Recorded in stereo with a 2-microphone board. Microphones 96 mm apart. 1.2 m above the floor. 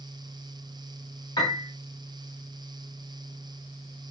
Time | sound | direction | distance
1.4 | a piano | 50° left (ahead or behind) | 3 m